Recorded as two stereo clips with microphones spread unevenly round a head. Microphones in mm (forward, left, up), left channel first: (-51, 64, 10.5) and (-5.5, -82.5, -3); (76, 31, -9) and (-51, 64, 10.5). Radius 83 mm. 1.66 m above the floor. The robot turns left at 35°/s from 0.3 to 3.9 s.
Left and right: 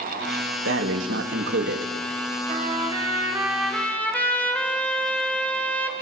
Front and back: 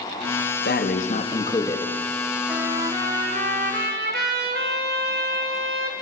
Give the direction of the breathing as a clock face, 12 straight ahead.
2 o'clock.